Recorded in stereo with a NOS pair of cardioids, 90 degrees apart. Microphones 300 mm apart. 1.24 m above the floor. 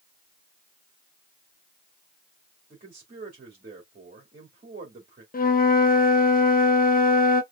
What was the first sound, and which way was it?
A man speaking, 30° right.